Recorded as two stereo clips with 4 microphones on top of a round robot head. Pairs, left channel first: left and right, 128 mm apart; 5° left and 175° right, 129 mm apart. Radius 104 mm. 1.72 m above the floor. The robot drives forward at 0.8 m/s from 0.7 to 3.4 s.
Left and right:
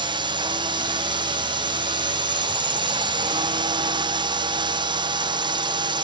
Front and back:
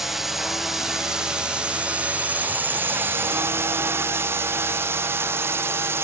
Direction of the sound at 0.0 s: 90° right.